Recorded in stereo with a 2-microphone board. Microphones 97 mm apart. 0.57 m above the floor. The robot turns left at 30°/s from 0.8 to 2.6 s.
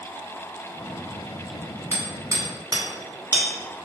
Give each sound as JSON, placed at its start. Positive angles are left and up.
{"t": 1.9, "sound": "hammering", "side_deg": -25, "distance_m": 1.5}